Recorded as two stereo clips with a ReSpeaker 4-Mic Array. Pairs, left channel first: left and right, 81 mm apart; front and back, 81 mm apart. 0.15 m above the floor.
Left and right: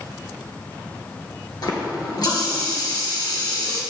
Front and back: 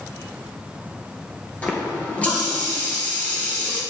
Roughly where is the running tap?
Left.